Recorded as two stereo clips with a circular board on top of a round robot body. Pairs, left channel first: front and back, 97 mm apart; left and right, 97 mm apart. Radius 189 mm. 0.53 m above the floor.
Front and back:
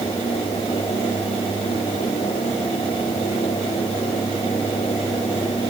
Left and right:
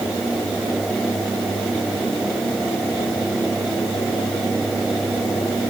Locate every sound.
Only background noise.